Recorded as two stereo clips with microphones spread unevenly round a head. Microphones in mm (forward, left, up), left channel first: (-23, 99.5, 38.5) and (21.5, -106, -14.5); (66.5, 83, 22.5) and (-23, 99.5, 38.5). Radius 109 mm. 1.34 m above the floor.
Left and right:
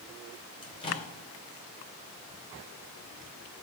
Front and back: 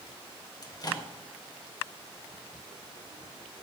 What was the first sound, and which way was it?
A microwave, 35° left.